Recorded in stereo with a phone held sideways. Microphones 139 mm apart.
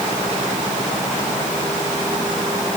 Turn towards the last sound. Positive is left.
No sound to turn to.